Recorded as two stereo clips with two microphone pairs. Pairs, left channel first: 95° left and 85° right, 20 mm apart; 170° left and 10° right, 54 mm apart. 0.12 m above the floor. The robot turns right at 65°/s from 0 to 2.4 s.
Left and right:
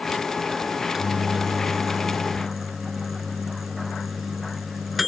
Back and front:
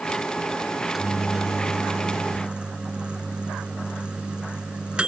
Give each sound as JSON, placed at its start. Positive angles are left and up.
{"t": 0.7, "sound": "a microwave", "azimuth_deg": -115}